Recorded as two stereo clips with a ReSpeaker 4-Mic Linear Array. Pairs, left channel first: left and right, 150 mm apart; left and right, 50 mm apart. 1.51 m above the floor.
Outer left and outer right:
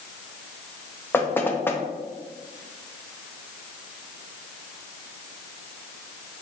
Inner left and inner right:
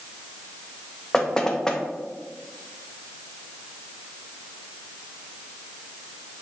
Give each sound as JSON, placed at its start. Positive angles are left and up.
{"t": 1.1, "sound": "knocking", "side_deg": 15, "distance_m": 0.6}